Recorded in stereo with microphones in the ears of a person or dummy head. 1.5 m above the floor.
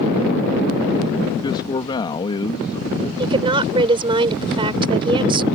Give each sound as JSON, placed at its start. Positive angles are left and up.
{"t": 1.4, "sound": "a man speaking", "side_deg": 25}
{"t": 3.2, "sound": "a woman speaking", "side_deg": -25}